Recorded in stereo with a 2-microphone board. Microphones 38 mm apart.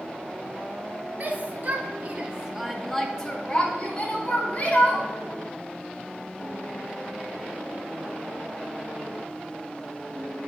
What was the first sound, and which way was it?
A shout, 45° right (ahead or behind).